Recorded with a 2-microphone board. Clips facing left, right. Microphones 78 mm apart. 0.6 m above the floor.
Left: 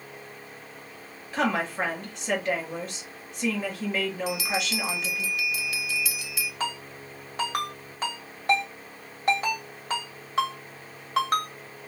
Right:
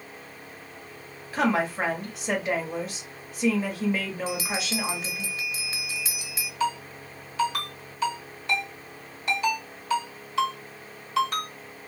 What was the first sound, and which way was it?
A woman speaking, centre (ahead or behind).